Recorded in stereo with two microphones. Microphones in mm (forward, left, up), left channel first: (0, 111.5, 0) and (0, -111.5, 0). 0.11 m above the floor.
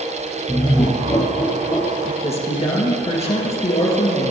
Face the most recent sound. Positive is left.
turn(degrees=30)  # may be behind; listen again after turning